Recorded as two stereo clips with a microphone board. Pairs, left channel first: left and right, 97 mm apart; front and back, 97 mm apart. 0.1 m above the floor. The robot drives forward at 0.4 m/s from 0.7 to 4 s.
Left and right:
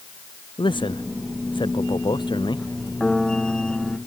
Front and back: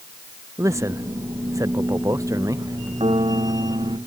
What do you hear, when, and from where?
0.6 s a man speaking: 120° left; by 2.9 s 125° left
3.0 s a piano: 175° left